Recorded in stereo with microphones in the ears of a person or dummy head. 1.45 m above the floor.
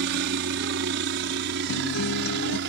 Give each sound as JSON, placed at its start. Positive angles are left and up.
{"t": 0.0, "sound": "a helicopter", "side_deg": -60}
{"t": 1.7, "sound": "a guitar", "side_deg": 75}